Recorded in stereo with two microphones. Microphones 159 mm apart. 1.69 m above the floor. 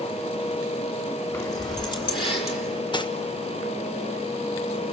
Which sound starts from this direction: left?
Cutlery clinking, at 2.9 s.